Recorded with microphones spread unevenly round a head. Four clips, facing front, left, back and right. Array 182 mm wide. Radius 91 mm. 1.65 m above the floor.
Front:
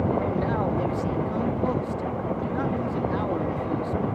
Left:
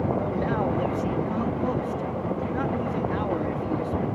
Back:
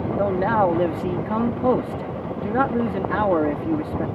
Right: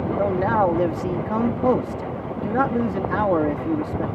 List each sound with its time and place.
0.2 s a man speaking: 140° right